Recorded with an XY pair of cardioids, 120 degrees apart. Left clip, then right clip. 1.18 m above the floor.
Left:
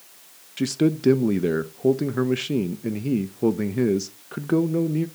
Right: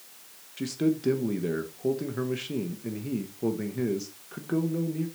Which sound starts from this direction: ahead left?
A man speaking, at 0.6 s.